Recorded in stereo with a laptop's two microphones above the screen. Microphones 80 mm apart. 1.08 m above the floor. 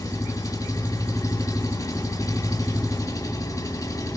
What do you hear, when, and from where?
0.0 s an engine running: 45° left (ahead or behind), 8 m